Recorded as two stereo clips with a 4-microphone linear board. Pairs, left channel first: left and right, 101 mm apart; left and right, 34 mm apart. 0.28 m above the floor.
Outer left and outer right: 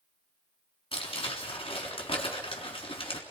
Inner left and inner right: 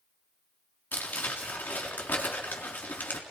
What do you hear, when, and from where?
0.9 s crumpling: 65° left (ahead or behind), 3.5 m